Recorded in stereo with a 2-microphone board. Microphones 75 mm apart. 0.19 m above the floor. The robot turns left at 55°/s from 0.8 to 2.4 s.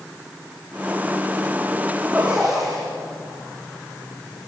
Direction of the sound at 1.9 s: 30° right (ahead or behind).